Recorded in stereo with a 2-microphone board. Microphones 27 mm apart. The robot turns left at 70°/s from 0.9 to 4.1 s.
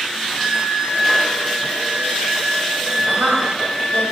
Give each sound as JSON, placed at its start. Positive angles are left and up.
{"t": 0.4, "sound": "a flute", "azimuth_deg": -15, "distance_m": 0.8}
{"t": 3.0, "sound": "a woman speaking", "side_deg": -45, "distance_m": 1.0}